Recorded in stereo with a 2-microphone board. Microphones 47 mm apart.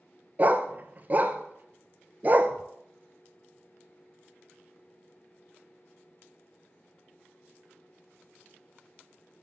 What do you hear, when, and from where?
0.4 s a dog barking: 35° right (ahead or behind), 0.8 m